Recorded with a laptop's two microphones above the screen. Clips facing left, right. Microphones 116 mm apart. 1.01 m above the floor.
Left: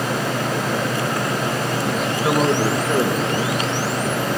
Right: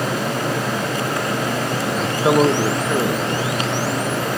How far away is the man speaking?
About 0.6 m.